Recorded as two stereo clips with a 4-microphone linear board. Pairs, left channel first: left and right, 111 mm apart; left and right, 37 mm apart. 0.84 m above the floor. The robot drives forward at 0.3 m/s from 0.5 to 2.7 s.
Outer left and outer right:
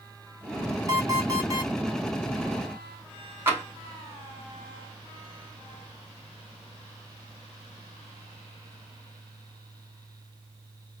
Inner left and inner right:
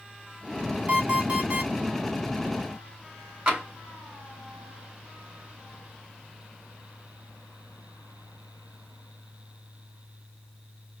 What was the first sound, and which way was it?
An alarm clock, 35° right (ahead or behind).